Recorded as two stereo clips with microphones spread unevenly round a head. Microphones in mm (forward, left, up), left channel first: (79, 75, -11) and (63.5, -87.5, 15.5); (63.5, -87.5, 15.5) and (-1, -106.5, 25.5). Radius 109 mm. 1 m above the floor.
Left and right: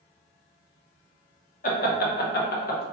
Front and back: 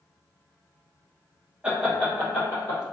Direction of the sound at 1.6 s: 110° left.